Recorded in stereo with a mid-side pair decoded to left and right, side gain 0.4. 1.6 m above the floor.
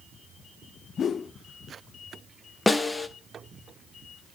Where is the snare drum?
20° left, 1.5 m.